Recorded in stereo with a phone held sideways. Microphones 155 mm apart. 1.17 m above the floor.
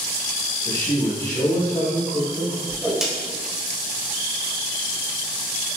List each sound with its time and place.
0.7 s a man speaking: 40° left (ahead or behind), 1.3 m
2.7 s a whoosh: 5° right (ahead or behind), 1.0 m